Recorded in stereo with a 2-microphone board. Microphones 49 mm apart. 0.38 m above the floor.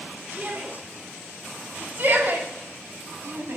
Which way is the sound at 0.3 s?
35° right (ahead or behind).